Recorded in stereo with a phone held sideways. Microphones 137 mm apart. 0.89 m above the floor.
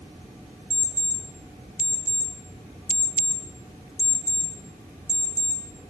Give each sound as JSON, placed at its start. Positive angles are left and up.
{"t": 0.7, "sound": "an alarm clock", "side_deg": 65, "distance_m": 1.5}